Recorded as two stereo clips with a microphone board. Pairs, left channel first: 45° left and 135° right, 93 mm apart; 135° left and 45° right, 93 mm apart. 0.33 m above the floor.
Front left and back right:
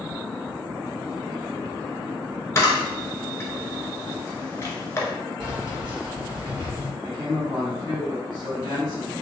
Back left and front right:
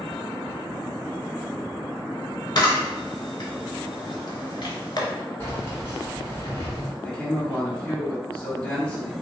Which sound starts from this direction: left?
A camera shutter, at 2.5 s.